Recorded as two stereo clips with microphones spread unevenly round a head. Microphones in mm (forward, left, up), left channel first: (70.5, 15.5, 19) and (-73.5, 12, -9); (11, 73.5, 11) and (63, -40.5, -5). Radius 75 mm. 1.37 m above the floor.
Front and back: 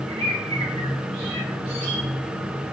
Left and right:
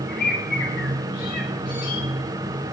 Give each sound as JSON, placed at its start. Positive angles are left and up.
{"t": 0.1, "sound": "a bird", "azimuth_deg": 130, "distance_m": 5.0}